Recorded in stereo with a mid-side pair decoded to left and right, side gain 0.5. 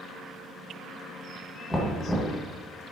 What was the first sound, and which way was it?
Knocking, 10° left.